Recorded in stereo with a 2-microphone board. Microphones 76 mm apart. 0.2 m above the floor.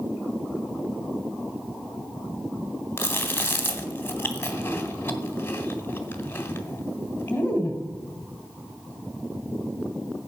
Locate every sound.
3.0 s chewing: 25° left (ahead or behind), 1.6 m